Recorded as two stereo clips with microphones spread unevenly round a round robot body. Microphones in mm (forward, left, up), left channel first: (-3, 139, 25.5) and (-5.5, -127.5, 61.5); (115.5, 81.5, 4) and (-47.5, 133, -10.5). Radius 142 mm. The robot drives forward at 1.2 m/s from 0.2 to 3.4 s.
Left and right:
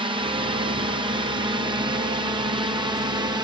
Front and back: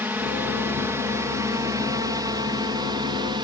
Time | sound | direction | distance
0.0 | a drone | 145° right | ?